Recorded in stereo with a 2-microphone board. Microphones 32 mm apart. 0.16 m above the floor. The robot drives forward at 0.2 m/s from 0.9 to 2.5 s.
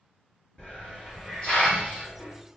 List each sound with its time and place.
0.6 s a hiss: 35° left (ahead or behind), 1.8 m